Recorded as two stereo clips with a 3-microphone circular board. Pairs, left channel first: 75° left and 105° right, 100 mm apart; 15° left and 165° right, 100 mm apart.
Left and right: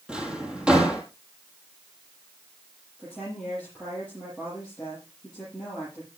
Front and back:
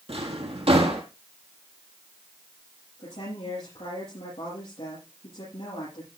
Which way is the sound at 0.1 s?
175° left.